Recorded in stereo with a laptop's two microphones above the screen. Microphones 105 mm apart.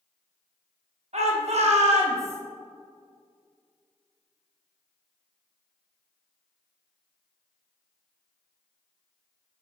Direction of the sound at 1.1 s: 70° right (ahead or behind).